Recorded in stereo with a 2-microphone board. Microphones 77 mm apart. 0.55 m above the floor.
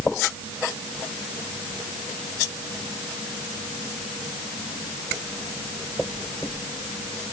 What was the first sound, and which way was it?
Only background noise.